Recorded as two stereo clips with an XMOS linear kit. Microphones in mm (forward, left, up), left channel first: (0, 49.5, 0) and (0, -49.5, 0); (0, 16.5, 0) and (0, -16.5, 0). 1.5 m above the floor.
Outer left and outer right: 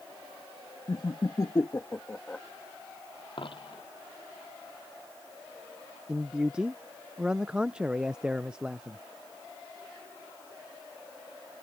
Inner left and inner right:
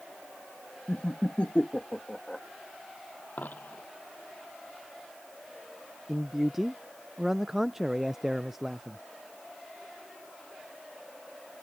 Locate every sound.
0.9 s laughter: 55° left (ahead or behind); by 2.4 s 10° left (ahead or behind)
3.4 s a dropped coin: 60° left (ahead or behind)
6.1 s a man speaking: 10° right (ahead or behind)